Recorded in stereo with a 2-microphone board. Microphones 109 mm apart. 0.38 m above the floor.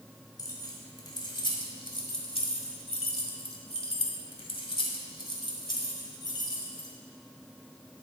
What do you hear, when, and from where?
0.4 s keys jangling: 35° left (ahead or behind), 2 m